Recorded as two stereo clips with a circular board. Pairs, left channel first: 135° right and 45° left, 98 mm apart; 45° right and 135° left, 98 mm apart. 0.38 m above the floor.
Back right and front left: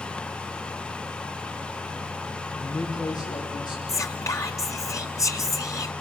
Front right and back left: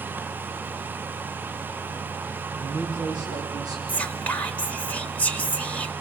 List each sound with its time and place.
2.5 s a man speaking: 175° left, 8 m; by 3.8 s straight behind, 8 m
3.9 s whispering: 110° right, 1.5 m